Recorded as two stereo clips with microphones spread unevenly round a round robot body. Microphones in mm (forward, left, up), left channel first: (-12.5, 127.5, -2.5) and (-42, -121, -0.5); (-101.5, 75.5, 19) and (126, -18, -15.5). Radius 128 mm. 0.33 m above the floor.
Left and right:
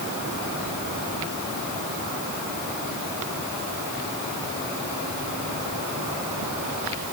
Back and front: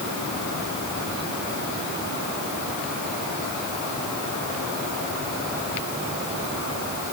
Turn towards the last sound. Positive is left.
No sound to turn to.